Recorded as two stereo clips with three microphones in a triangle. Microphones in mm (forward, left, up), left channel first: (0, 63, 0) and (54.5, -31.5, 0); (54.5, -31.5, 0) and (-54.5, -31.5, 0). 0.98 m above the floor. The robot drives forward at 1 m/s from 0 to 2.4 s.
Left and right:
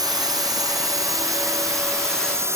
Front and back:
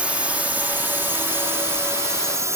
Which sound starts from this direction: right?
A drone, at 0.0 s.